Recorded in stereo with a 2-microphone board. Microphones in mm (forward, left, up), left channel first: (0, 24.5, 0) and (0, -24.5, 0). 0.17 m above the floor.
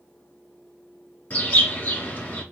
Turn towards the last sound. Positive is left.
turn(degrees=30)  # may be behind; listen again after turning